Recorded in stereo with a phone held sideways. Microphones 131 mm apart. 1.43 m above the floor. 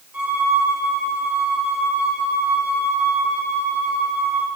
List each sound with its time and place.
0.1 s a violin: 10° right (ahead or behind), 5 m